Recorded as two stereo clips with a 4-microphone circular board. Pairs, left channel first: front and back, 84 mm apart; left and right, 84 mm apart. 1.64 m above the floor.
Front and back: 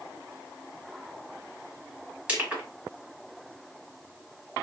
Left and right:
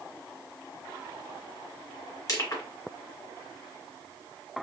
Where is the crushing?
110° left, 1.3 m.